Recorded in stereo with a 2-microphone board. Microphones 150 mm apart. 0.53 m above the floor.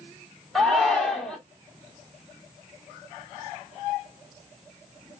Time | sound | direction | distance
0.6 | a shout | 5° left (ahead or behind) | 1.6 m